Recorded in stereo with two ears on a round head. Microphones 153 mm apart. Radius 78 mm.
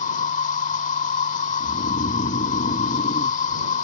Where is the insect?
45° left (ahead or behind).